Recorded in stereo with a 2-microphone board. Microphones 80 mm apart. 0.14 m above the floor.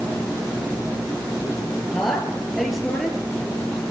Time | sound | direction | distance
1.9 | a woman speaking | centre (ahead or behind) | 3 m